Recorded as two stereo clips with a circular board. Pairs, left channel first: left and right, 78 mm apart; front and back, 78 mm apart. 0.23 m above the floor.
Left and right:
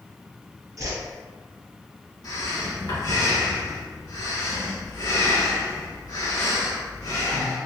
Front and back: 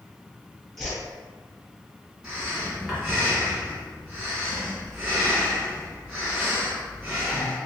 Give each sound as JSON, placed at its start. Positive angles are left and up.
{"t": 0.8, "sound": "a whoosh", "azimuth_deg": -85, "distance_m": 1.1}
{"t": 2.2, "sound": "breathing", "azimuth_deg": 100, "distance_m": 1.2}